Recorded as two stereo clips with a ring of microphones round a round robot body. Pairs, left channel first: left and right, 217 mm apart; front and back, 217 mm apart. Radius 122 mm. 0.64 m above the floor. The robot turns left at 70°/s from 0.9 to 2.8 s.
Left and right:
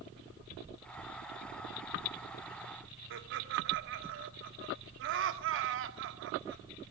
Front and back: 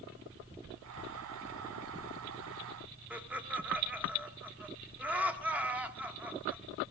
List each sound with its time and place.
3.1 s laughter: 100° right, 1.3 m